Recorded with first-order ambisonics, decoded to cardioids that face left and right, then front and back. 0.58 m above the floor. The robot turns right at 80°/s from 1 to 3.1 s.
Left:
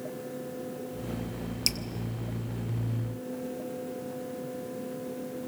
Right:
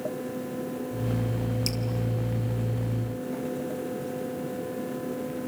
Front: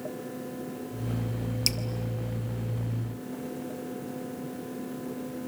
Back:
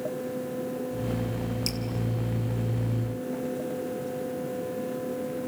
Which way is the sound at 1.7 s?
35° left.